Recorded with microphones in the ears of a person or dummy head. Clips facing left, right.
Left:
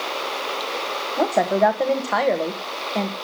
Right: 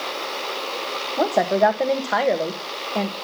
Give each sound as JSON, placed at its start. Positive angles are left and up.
{"t": 1.2, "sound": "a woman speaking", "side_deg": 0, "distance_m": 1.1}